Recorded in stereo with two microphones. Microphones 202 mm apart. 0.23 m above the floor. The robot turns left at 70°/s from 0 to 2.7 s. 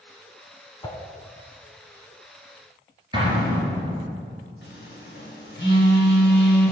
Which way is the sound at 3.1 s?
25° right (ahead or behind).